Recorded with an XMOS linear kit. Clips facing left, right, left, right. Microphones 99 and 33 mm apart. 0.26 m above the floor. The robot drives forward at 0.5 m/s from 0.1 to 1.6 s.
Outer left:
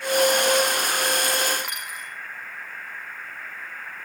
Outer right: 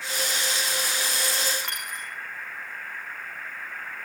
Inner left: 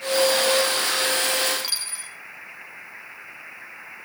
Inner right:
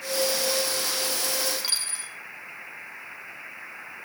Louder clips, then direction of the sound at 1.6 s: Even, even; 5° left (ahead or behind).